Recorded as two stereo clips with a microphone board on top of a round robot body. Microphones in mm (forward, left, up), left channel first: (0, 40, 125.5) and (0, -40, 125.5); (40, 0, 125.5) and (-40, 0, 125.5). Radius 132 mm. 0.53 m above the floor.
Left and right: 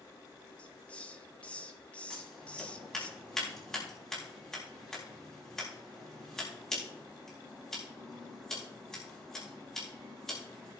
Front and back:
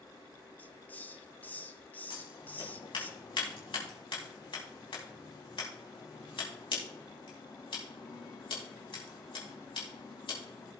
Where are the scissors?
5° left, 4 m.